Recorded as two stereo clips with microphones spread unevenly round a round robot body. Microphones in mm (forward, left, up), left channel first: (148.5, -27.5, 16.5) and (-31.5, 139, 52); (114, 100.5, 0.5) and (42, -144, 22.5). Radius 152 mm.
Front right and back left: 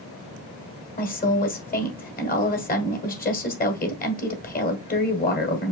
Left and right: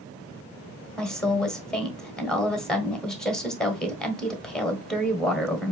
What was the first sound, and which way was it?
A woman speaking, 10° right.